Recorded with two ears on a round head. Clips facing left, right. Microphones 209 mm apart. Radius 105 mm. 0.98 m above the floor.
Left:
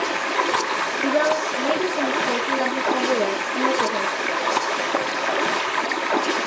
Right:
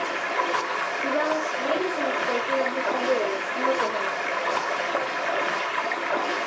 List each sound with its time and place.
0.0 s running water: 55° left (ahead or behind), 0.8 m
1.0 s a woman speaking: 55° left (ahead or behind), 1.4 m